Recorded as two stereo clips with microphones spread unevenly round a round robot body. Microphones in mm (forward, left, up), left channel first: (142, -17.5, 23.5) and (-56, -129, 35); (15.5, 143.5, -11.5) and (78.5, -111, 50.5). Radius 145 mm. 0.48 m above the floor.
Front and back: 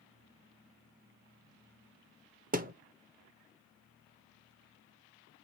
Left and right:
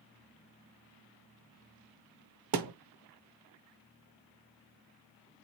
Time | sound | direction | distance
2.5 | a thud | 95° right | 0.8 m